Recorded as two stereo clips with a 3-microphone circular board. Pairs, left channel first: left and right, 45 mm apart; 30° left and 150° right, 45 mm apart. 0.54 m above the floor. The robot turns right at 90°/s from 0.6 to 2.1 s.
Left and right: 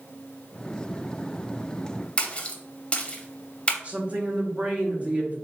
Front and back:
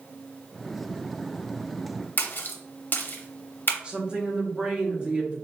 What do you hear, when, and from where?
2.2 s a splash: 35° left, 0.6 m
3.8 s a woman speaking: 110° right, 0.9 m